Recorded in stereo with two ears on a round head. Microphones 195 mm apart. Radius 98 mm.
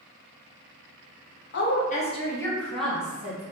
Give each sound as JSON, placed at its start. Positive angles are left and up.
{"t": 1.5, "sound": "a woman speaking", "side_deg": 55, "distance_m": 0.7}